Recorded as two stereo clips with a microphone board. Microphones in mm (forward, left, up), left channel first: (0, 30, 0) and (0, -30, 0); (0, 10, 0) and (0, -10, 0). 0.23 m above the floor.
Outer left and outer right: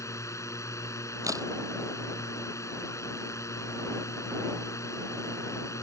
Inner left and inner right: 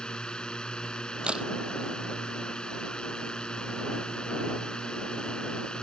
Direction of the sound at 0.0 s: 60° left (ahead or behind).